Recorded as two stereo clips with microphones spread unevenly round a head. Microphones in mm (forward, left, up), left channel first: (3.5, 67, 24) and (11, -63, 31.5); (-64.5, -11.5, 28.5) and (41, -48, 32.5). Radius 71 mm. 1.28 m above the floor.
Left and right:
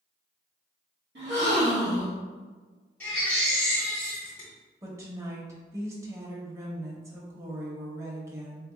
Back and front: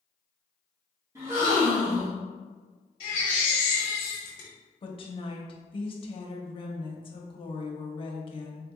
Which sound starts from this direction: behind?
A baby crying, at 3.0 s.